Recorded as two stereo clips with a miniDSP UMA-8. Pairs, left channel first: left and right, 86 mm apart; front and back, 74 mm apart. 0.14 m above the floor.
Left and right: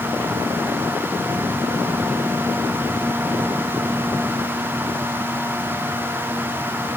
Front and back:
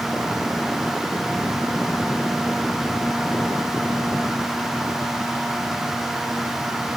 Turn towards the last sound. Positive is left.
No sound to turn to.